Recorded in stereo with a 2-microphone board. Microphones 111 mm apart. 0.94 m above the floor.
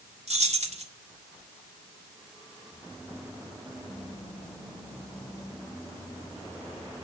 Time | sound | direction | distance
0.3 | keys jangling | 80° right | 1.6 m